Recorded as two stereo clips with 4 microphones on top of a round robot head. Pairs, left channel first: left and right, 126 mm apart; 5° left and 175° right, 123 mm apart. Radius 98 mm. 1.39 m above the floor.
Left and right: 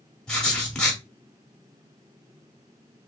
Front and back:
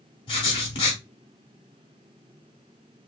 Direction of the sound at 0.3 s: 15° left.